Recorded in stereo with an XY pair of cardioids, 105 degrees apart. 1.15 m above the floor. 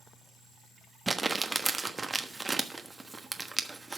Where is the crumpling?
20° right, 1.2 m.